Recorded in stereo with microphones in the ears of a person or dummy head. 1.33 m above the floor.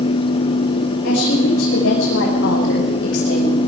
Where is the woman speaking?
60° left (ahead or behind), 6 m; by 3.6 s 70° left (ahead or behind), 8 m.